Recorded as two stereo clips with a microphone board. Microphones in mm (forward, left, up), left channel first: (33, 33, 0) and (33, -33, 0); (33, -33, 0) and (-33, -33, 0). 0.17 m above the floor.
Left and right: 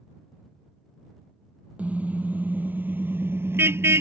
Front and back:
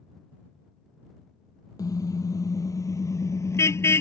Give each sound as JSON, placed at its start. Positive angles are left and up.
{"t": 1.8, "sound": "a car horn", "azimuth_deg": -20}